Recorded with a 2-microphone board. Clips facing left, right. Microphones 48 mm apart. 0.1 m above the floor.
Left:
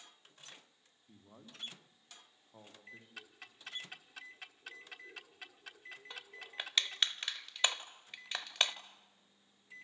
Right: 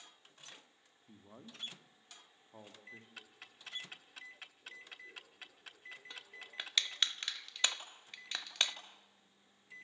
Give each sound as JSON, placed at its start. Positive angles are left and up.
{"t": 1.1, "sound": "a man speaking", "side_deg": -50, "distance_m": 4.0}
{"t": 3.2, "sound": "ticking", "side_deg": 0, "distance_m": 1.2}
{"t": 6.1, "sound": "crushing", "side_deg": 5, "distance_m": 1.0}